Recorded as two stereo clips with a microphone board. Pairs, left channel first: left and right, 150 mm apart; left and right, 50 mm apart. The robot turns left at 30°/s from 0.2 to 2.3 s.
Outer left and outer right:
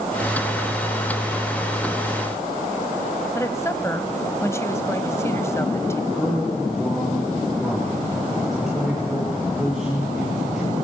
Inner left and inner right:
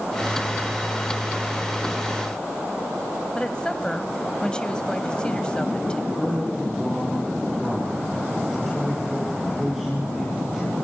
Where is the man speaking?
5° right (ahead or behind), 7.5 m.